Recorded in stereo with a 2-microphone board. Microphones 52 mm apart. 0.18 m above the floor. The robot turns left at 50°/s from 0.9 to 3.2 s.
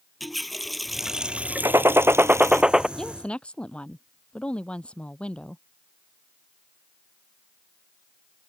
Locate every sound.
0.2 s a running tap: straight ahead; by 2.6 s 85° right
1.6 s a gunshot: 110° right; by 2.9 s 170° right
3.0 s a woman speaking: 10° left (ahead or behind); by 5.6 s 20° left (ahead or behind)